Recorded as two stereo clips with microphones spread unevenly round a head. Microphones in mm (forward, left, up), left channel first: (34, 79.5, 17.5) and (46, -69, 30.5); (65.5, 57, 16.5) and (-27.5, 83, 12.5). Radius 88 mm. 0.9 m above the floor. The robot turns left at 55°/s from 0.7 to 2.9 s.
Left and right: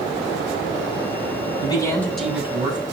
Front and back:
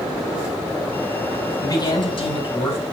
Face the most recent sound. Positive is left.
turn(degrees=-30)